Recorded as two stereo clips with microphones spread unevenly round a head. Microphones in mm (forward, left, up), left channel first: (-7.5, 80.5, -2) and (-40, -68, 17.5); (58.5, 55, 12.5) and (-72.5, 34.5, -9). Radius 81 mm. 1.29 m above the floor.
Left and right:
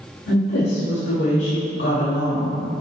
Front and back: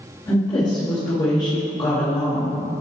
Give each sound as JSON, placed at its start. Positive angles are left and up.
{"t": 0.3, "sound": "a woman speaking", "azimuth_deg": 65, "distance_m": 2.0}